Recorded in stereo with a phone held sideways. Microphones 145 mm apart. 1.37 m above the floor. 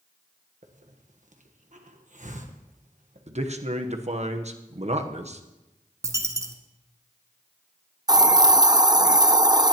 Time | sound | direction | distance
0.6 | a hiss | 60° right (ahead or behind) | 1.2 m
3.3 | a man speaking | 50° right (ahead or behind) | 1.0 m
6.0 | a dropped coin | 20° right (ahead or behind) | 1.3 m
8.1 | a hiss | 30° right (ahead or behind) | 0.7 m